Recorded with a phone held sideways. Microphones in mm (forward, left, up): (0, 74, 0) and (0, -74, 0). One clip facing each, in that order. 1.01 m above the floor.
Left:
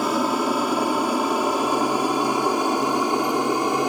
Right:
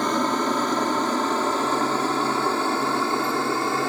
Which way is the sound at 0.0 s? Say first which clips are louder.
Left 1 dB; 10° left (ahead or behind).